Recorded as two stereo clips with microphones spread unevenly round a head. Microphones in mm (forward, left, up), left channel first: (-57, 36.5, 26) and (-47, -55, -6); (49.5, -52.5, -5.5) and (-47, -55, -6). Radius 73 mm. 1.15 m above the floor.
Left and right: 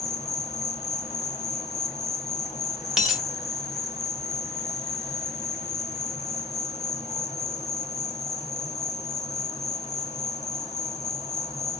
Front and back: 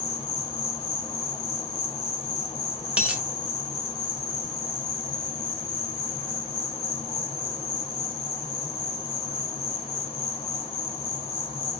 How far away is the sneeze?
No sneeze in this recording.